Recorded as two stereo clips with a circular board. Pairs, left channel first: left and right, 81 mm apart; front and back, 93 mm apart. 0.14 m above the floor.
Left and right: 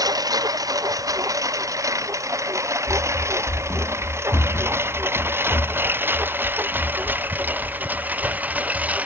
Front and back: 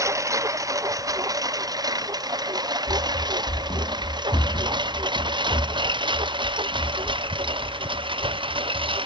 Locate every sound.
0.0 s a lawn mower: 125° right; by 9.1 s 160° right
2.9 s running footsteps: 20° left; by 9.0 s 50° left